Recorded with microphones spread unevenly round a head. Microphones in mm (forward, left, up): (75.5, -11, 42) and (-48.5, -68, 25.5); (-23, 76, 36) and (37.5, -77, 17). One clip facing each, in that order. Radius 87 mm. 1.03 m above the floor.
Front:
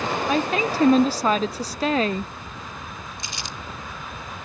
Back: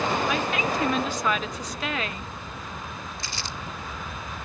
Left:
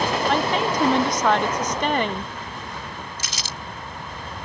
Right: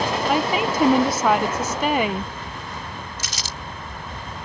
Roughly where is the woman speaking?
Ahead.